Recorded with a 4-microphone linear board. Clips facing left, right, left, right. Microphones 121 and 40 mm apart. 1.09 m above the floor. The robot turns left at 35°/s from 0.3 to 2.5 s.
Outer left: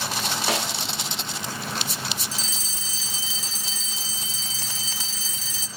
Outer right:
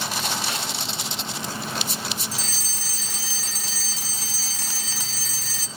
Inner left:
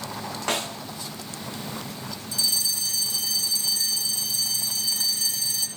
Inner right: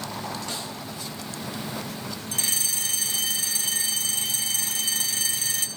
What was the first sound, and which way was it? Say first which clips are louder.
A snare drum: outer left 4 dB, inner left 6 dB; 75° left (ahead or behind).